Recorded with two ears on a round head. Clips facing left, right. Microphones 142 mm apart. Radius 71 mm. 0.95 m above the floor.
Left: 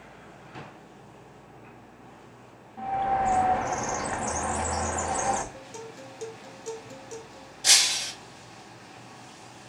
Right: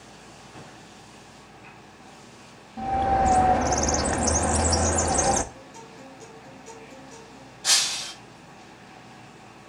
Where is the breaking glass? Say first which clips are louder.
Left 1 dB; 25° left (ahead or behind), 0.9 m.